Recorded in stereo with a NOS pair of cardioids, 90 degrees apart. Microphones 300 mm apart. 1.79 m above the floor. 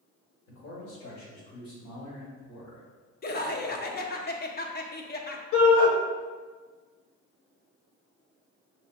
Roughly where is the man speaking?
Ahead left.